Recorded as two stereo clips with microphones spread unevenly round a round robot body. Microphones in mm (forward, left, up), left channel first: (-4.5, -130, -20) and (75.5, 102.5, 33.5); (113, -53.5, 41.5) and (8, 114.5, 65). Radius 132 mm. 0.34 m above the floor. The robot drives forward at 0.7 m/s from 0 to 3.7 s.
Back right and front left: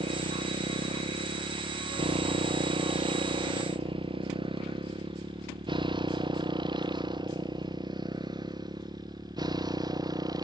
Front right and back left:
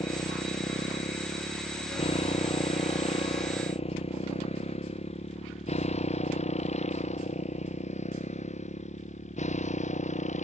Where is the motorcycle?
5° left; by 10.4 s 5° right.